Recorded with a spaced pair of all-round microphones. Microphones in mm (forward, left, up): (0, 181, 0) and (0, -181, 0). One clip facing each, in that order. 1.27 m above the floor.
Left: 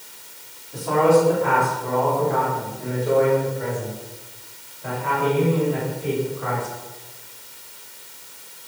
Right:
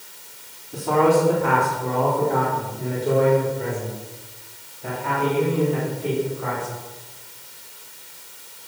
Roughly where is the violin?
No violin in this recording.